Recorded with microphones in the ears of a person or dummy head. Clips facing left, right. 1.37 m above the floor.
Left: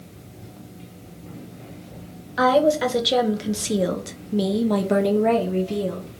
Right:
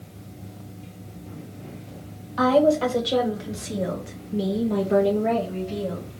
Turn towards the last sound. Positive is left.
turn(degrees=60)  # may be behind; listen again after turning